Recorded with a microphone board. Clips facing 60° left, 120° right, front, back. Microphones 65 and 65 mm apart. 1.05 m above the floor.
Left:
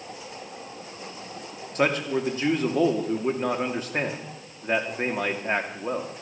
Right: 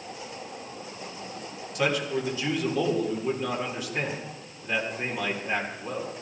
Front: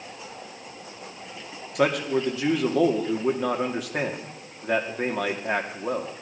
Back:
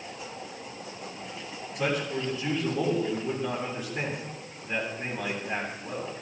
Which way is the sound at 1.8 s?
10° left.